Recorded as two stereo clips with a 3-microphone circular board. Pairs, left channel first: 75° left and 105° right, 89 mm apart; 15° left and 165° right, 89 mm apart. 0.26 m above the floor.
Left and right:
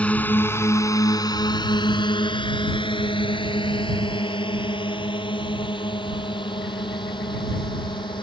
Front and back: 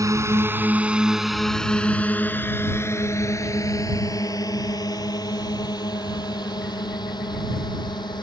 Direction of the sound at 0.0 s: 150° left.